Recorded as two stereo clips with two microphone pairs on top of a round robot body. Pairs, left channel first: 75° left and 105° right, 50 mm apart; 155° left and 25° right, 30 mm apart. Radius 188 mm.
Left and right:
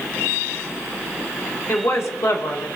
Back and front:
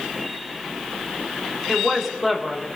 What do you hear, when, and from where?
1.7 s a woman speaking: 70° left, 2.5 m